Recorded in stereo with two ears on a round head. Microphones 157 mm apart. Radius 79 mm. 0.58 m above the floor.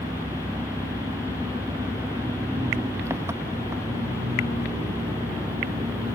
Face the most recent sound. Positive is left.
turn(degrees=-15)  # may be behind; listen again after turning